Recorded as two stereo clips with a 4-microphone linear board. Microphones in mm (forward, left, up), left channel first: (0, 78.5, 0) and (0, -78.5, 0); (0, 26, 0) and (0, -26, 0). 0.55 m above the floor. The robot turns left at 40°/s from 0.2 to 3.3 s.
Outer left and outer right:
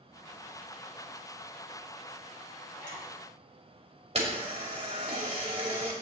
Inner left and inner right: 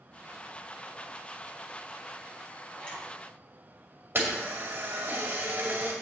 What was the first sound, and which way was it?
A zipper, 30° left (ahead or behind).